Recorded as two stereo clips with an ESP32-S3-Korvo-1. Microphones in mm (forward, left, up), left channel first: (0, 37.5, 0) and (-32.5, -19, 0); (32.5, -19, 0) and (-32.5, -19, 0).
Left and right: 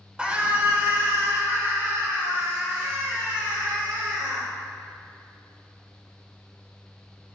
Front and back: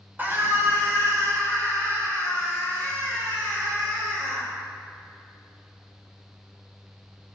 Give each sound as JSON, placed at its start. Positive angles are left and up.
{"t": 0.2, "sound": "a scream", "azimuth_deg": -170, "distance_m": 1.3}